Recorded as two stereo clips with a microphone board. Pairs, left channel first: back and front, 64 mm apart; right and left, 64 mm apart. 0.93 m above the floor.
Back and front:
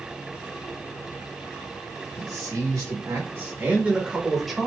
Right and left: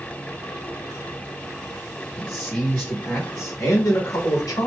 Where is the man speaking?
15° right, 1.6 m; by 4.7 s 100° right, 1.4 m.